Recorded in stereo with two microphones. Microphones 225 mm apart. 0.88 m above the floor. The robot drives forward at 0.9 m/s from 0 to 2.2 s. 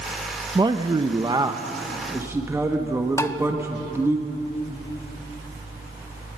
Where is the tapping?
15° left (ahead or behind), 0.8 m.